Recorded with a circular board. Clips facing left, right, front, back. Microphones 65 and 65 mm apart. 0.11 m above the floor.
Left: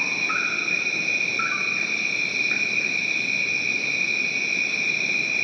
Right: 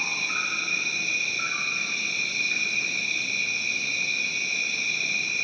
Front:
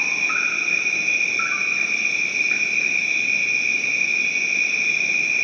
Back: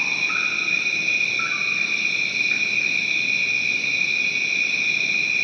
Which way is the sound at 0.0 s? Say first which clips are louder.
Left 4 dB, front 1 dB; 65° left.